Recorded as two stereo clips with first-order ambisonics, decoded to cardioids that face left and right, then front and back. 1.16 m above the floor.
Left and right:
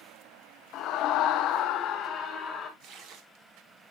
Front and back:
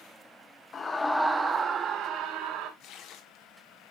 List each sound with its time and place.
0.7 s a scream: 60° left, 1.0 m; by 2.7 s 150° left, 1.7 m
2.8 s tearing paper: 45° right, 1.5 m